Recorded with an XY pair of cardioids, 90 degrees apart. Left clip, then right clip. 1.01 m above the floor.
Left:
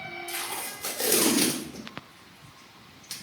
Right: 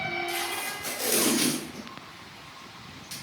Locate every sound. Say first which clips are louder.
0.3 s tape being pulled: right 4 dB; 65° left, 0.8 m